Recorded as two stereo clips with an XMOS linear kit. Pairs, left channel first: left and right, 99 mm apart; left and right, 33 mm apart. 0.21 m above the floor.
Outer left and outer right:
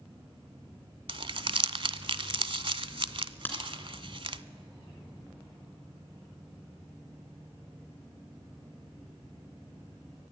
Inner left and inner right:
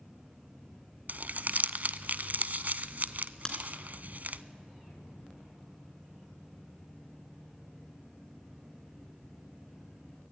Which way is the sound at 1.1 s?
55° right (ahead or behind).